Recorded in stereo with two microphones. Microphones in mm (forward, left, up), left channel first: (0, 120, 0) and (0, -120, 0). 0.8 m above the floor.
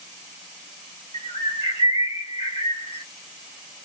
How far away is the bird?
About 0.9 m.